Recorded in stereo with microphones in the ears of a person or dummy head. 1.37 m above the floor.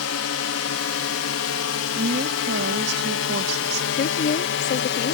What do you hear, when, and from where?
0.0 s a drone: 70° left (ahead or behind); by 5.1 s 60° left (ahead or behind)
1.9 s a woman speaking: 65° right (ahead or behind)
3.9 s a woman speaking: 45° left (ahead or behind)